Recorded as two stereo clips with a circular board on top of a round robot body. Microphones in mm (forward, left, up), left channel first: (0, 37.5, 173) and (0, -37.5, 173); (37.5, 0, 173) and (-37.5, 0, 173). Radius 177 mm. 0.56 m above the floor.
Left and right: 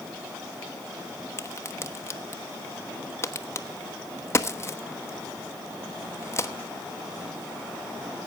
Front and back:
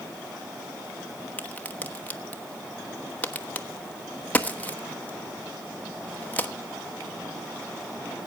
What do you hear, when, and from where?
1.4 s a crack: 60° left, 1.4 m